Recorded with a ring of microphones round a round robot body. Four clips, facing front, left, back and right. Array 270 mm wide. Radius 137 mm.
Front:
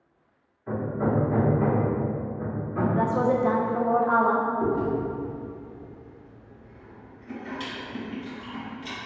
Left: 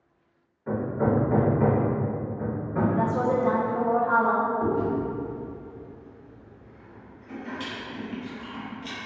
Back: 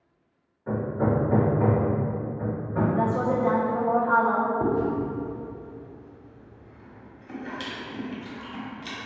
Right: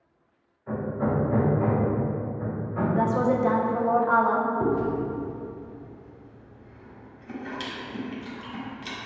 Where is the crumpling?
I don't hear crumpling.